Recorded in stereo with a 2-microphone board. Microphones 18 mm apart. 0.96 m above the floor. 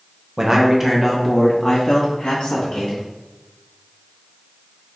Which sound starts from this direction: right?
A man speaking, at 0.4 s.